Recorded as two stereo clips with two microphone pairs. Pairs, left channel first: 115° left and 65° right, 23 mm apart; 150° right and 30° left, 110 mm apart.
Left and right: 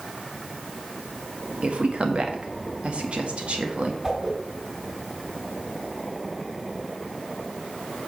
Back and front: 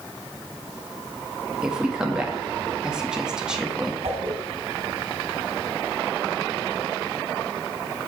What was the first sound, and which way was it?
A woman speaking, 50° right.